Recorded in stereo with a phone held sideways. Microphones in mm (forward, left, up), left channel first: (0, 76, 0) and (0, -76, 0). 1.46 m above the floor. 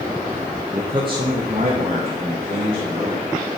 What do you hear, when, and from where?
0.7 s a man speaking: 15° right (ahead or behind), 0.6 m; by 3.2 s 55° right (ahead or behind), 2.5 m